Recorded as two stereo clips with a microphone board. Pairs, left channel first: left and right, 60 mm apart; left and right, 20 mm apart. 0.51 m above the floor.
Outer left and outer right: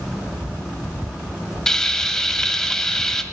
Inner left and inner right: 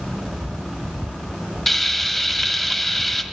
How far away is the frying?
About 2 m.